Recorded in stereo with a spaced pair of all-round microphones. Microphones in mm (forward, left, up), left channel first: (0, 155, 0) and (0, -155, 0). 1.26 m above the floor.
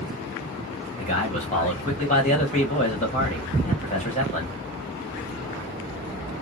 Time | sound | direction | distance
1.0 | a man speaking | 20° left (ahead or behind) | 1.6 m